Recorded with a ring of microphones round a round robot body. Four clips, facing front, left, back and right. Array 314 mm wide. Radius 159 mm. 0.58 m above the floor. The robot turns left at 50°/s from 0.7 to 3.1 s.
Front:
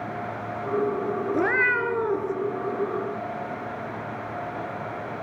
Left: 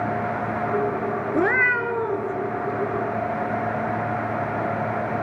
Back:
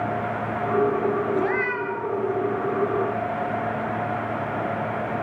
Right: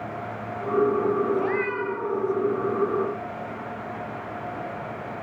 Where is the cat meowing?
75° left, 2 m; by 2.3 s 25° left, 2 m.